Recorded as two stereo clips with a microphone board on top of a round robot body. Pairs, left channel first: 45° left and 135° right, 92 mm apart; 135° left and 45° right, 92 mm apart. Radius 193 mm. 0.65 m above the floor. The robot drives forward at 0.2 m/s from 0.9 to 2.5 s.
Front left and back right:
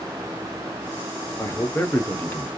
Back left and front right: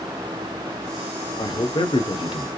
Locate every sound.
1.4 s a man speaking: 105° left, 1.1 m; by 2.5 s 115° left, 1.1 m